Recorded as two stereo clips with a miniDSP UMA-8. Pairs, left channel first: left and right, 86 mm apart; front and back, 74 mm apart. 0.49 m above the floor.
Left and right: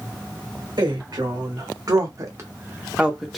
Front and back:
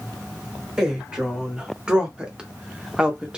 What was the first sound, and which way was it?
A woman speaking, 100° right.